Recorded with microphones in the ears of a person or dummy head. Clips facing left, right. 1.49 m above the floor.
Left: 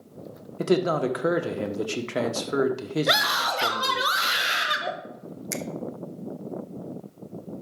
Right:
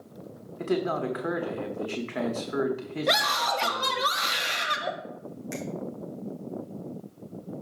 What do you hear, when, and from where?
0.6 s a man speaking: 55° left (ahead or behind), 1.2 m
3.1 s a scream: 5° left (ahead or behind), 1.4 m
5.5 s a finger snap: 55° left (ahead or behind), 1.0 m